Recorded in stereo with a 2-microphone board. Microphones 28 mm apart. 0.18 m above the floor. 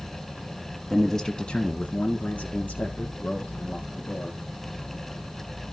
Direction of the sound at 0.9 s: Centre (ahead or behind).